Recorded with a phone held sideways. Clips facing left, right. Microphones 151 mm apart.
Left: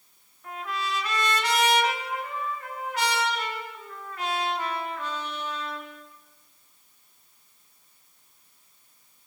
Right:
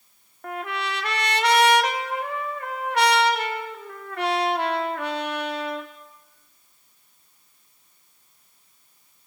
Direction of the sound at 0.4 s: 75° right (ahead or behind).